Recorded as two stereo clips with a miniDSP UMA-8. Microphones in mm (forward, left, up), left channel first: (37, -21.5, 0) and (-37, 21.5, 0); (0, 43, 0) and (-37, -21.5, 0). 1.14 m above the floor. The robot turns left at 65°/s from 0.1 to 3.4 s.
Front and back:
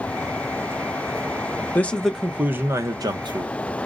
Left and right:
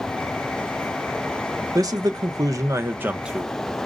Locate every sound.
1.8 s a man speaking: 95° right, 0.7 m; by 3.5 s 155° left, 0.7 m